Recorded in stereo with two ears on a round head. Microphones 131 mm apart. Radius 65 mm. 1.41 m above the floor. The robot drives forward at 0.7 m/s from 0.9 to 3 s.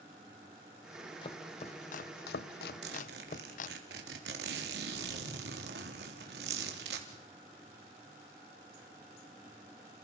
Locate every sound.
1.2 s chopping: 35° left (ahead or behind), 1.1 m; by 3.8 s 55° left (ahead or behind), 0.7 m
2.8 s a zipper: 85° right, 3.5 m